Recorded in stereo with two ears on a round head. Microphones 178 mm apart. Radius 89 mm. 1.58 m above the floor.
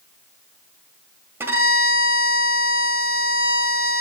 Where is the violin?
10° right (ahead or behind), 1.6 m.